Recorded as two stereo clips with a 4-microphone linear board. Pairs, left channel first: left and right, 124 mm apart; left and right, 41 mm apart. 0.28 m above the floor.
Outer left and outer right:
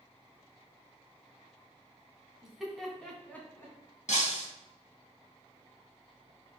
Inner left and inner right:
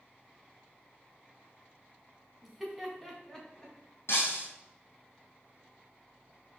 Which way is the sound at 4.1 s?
70° left (ahead or behind).